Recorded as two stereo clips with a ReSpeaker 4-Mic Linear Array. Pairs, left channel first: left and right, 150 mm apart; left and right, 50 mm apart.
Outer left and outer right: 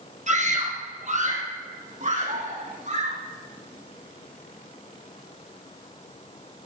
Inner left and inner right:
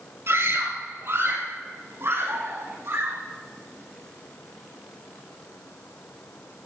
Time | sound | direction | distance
0.3 | a scream | 50° right (ahead or behind) | 3.5 m